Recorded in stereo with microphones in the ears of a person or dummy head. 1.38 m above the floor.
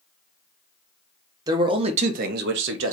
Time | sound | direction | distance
1.5 | a man speaking | 25° right (ahead or behind) | 1.0 m